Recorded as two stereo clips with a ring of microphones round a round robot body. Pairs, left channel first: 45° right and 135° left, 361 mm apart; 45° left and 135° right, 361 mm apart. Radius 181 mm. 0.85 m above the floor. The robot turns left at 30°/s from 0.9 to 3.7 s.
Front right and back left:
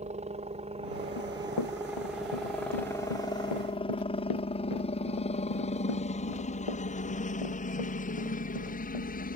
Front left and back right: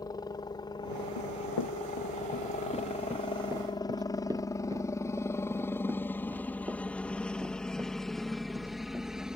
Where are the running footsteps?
10° left; by 9.1 s 50° right.